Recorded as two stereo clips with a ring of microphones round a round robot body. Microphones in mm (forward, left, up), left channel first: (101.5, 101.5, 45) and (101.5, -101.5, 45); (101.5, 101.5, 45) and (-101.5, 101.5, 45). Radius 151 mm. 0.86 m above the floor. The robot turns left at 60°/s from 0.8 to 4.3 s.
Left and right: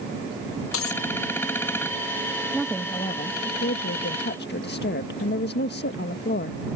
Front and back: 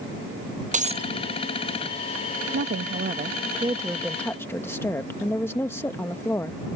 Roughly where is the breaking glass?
Behind left.